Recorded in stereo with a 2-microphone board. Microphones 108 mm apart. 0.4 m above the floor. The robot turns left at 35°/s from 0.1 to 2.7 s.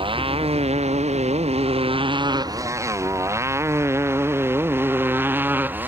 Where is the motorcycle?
55° right (ahead or behind); by 5.9 s 15° right (ahead or behind).